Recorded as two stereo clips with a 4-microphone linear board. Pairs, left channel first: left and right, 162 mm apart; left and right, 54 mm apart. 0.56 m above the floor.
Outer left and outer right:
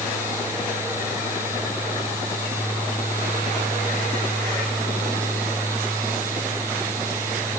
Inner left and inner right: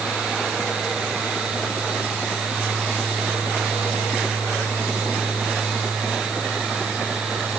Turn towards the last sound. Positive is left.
No sound to turn to.